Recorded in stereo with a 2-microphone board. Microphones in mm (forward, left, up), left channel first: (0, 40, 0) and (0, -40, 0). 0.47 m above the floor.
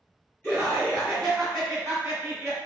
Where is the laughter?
25° left (ahead or behind), 1.4 m; by 2.6 s 25° right (ahead or behind), 1.3 m.